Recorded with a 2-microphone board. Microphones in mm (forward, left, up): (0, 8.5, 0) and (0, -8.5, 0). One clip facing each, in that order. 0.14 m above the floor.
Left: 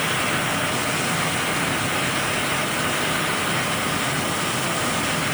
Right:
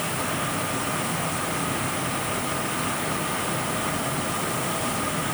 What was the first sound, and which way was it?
Only background noise.